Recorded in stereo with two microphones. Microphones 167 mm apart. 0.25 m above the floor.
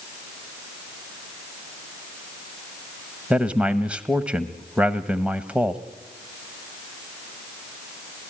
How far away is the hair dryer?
I don't hear a hair dryer.